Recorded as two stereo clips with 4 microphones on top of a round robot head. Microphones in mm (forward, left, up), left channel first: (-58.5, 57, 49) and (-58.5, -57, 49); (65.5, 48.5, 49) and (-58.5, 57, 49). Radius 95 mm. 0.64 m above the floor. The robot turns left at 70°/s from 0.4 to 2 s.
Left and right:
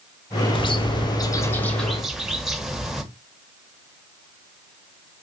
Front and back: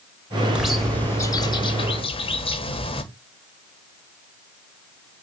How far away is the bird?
About 1.2 m.